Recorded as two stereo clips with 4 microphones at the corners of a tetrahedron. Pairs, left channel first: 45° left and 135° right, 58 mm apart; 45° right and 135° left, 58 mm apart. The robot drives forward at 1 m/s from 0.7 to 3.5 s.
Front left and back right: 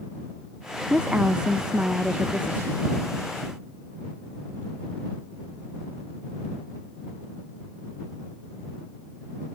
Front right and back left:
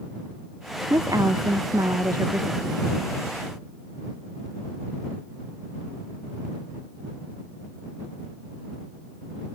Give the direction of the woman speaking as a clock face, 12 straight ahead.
7 o'clock.